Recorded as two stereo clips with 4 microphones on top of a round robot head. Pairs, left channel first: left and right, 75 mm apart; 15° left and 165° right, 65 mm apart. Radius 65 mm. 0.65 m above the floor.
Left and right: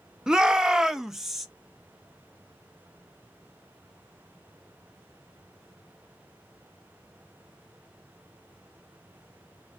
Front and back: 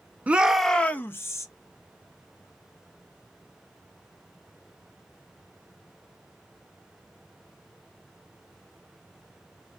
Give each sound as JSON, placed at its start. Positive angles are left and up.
{"t": 0.3, "sound": "a shout", "azimuth_deg": -160, "distance_m": 0.7}